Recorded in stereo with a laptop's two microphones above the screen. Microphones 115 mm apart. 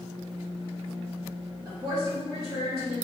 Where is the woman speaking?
35° right (ahead or behind), 1.6 m; by 3.0 s 65° right (ahead or behind), 1.5 m.